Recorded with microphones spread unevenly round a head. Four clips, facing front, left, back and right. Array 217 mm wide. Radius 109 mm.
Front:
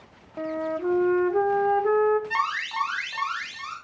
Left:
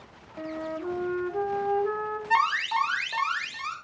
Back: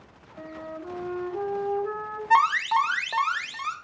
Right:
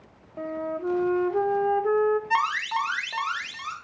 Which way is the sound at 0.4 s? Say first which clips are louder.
Right 3 dB, front 10 dB; 25° right.